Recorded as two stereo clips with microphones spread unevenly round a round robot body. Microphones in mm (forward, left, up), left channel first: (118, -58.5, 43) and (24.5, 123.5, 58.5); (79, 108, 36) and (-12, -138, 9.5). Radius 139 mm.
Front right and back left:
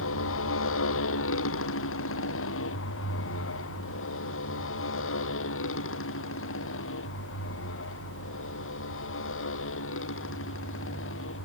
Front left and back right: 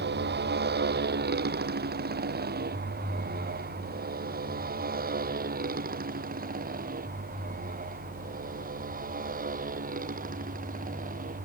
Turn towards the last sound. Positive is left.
turn(degrees=-50)